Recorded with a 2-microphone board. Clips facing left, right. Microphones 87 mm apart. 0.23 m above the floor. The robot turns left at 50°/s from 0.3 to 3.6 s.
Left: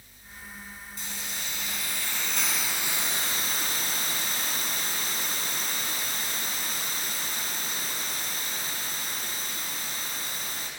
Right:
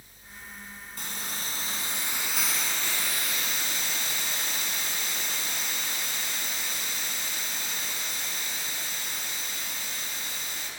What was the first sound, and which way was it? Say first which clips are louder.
A hiss: right 2 dB; 105° right.